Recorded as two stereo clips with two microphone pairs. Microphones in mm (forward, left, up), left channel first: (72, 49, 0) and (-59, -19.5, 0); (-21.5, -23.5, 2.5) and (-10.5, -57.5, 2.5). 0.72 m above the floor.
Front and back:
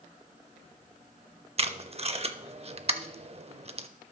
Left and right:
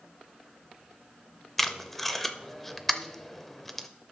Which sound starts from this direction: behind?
Tape being pulled, at 1.6 s.